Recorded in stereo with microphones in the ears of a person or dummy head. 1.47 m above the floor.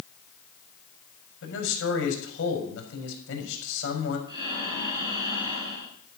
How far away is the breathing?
About 6 m.